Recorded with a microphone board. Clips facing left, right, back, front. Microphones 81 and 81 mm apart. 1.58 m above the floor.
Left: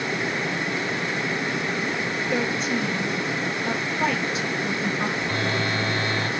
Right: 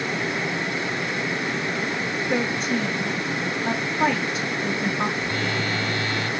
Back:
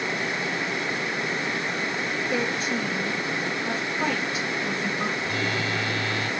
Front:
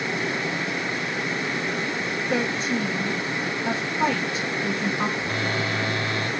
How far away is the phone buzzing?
About 0.8 m.